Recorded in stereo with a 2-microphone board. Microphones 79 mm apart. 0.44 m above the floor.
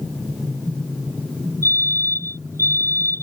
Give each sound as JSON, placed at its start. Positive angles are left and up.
{"t": 1.6, "sound": "a fire alarm", "side_deg": -40}